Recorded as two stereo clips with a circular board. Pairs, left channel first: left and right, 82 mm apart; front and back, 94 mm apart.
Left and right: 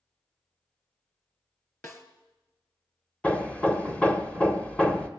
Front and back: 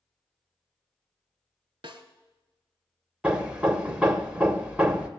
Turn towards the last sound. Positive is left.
turn(degrees=125)